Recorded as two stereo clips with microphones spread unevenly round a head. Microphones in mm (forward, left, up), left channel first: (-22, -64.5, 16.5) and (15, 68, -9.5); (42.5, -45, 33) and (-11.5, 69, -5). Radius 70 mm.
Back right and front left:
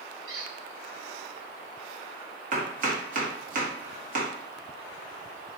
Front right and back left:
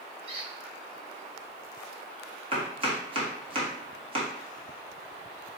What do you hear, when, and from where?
0.3 s a squeak: 70° left, 1.8 m
2.5 s chopping: 85° left, 1.4 m